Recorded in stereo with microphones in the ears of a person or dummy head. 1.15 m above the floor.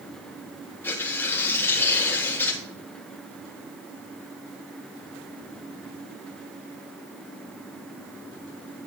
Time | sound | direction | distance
0.8 | tearing paper | 15° left (ahead or behind) | 1.5 m